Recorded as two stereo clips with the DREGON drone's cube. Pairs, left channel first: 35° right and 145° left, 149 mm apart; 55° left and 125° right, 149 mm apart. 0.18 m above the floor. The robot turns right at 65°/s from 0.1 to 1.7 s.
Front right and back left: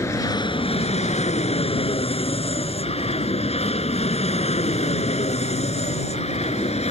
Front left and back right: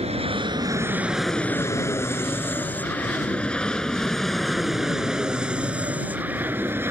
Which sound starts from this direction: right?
An aircraft, at 0.0 s.